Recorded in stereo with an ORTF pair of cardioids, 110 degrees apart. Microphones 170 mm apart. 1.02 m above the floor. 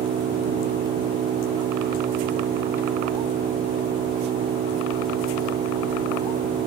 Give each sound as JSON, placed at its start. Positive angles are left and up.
{"t": 0.0, "sound": "an engine running", "azimuth_deg": -60}